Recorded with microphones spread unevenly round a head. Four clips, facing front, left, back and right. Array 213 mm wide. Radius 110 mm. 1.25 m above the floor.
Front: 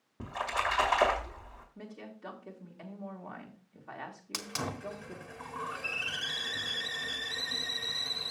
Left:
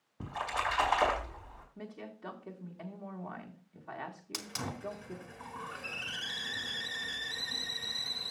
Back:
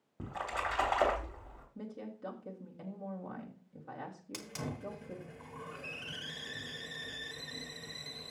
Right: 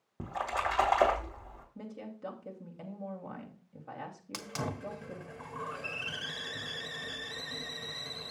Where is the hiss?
65° right, 1.4 m.